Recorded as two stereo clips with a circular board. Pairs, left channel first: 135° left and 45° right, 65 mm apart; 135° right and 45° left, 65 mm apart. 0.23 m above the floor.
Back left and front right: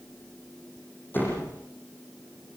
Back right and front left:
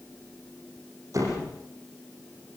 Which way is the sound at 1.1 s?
75° left.